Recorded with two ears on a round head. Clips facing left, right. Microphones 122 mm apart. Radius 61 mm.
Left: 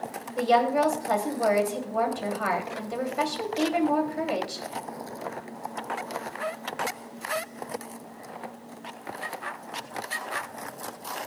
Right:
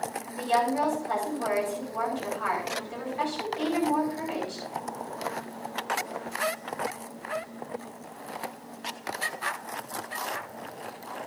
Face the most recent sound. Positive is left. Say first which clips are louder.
# left 4 dB
turn(degrees=70)  # may be behind; listen again after turning